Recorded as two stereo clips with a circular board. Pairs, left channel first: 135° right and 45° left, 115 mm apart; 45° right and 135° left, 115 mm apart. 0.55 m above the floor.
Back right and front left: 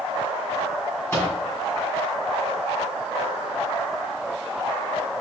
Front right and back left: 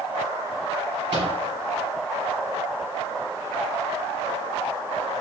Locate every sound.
1.1 s a microwave: 160° left, 1.8 m